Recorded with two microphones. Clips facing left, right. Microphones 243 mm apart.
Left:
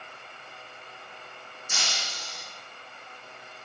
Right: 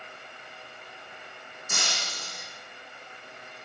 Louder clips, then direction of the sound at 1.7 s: Right 3 dB; 55° right (ahead or behind).